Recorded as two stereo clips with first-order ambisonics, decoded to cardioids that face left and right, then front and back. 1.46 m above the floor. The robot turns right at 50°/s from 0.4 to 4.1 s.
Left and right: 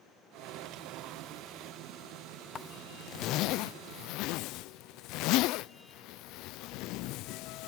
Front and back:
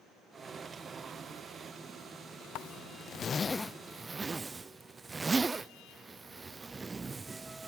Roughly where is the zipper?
Ahead left.